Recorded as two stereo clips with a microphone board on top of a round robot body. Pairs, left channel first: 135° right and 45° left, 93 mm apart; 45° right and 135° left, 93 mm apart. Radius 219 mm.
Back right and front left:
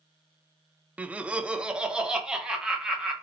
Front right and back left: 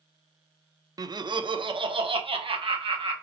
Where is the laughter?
115° left, 0.6 m; by 3.1 s 125° left, 1.5 m.